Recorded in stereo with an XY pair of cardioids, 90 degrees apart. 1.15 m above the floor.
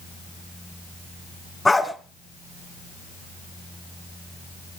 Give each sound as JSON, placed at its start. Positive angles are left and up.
{"t": 1.6, "sound": "a dog barking", "azimuth_deg": 20, "distance_m": 3.5}